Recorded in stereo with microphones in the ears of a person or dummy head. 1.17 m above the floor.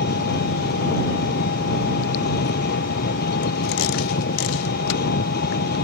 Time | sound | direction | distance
0.0 | an engine running | 50° left (ahead or behind) | ?